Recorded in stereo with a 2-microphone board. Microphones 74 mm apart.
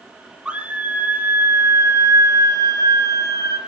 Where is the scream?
15° right (ahead or behind), 2 m; by 3.6 s 55° right (ahead or behind), 2 m.